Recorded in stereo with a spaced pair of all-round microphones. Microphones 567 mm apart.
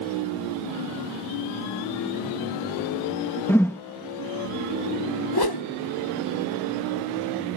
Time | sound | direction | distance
3.5 | a whoosh | 5° left (ahead or behind) | ?
5.3 | a whoosh | 40° left (ahead or behind) | ?